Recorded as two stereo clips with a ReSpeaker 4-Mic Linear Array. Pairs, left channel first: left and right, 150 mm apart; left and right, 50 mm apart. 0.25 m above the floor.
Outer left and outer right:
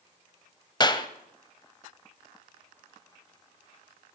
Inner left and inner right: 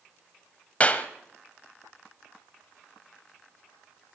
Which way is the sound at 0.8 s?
30° left (ahead or behind).